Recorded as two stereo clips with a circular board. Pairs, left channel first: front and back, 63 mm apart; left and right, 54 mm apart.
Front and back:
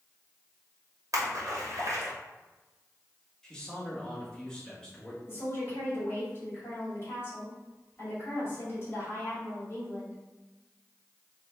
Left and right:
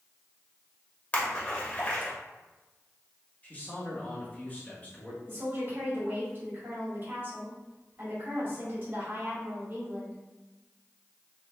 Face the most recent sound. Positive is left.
turn(degrees=-45)